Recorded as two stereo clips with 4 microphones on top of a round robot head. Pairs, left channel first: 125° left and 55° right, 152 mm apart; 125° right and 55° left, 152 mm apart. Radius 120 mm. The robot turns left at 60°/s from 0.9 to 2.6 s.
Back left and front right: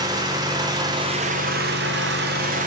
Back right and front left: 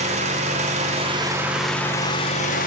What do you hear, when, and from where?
0.0 s an engine running: 10° left, 0.8 m; by 2.7 s 95° right, 0.8 m